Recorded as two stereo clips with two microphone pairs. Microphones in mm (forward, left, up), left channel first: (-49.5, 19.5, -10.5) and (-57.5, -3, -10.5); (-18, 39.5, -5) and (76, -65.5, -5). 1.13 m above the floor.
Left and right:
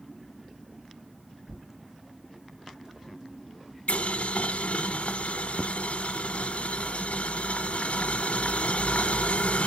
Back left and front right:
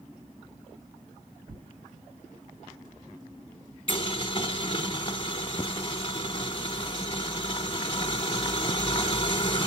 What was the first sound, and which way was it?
Tearing paper, 70° right.